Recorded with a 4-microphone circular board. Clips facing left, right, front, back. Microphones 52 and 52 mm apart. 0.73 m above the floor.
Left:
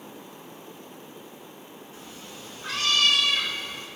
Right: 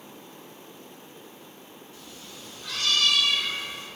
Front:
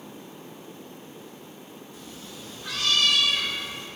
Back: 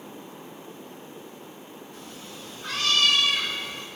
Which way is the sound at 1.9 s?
150° left.